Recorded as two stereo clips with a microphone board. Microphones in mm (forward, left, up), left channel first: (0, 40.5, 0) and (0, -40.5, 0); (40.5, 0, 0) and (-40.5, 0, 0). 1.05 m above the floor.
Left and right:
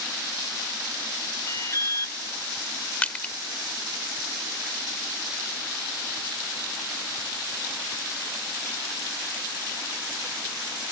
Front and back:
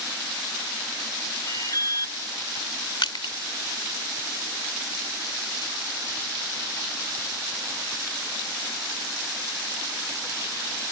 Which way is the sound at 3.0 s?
20° left.